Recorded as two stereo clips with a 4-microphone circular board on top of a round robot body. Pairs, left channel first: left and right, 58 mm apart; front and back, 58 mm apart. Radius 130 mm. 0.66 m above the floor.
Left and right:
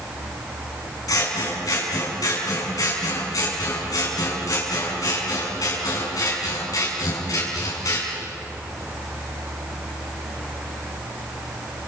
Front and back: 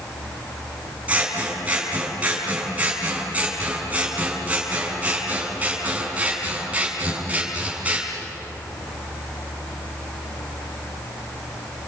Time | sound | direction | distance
1.1 | scissors | 115° left | 6.5 m